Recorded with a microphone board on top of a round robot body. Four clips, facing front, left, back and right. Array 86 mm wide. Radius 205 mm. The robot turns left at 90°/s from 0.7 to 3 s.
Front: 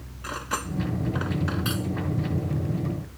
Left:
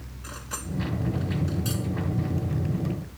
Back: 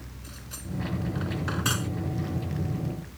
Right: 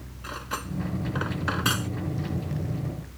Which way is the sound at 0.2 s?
20° right.